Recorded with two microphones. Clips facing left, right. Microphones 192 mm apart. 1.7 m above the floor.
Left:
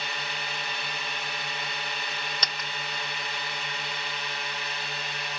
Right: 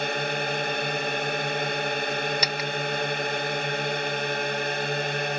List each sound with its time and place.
0.0 s a drone: 55° right (ahead or behind)
2.4 s a dropped coin: 10° right (ahead or behind)